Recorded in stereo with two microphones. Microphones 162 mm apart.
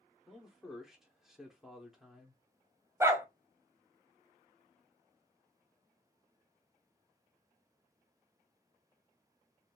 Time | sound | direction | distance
0.3 | a man speaking | 5° right (ahead or behind) | 1.0 m
3.0 | a dog barking | 20° right (ahead or behind) | 0.7 m